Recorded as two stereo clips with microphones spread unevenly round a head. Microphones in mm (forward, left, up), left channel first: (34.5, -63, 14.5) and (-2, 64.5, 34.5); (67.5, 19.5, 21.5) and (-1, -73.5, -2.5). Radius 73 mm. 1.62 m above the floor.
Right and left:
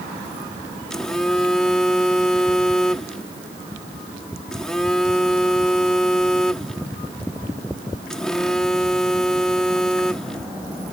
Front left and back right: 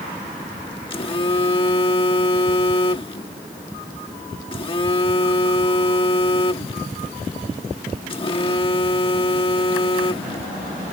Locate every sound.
0.9 s a phone buzzing: 15° left